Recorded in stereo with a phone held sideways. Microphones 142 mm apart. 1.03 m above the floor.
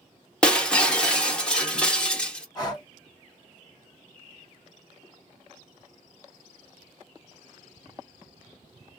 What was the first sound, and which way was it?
Breaking glass, 5° left (ahead or behind).